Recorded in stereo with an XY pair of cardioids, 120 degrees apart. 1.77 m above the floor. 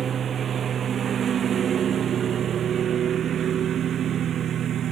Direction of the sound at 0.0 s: 45° right.